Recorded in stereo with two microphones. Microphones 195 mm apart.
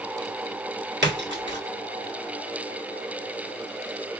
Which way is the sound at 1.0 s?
65° right (ahead or behind).